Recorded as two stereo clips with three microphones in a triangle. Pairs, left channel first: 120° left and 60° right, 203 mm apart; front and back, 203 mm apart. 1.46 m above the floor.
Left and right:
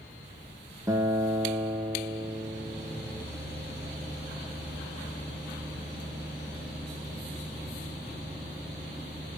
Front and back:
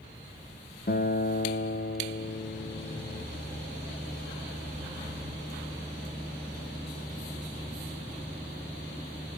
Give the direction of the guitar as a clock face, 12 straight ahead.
12 o'clock.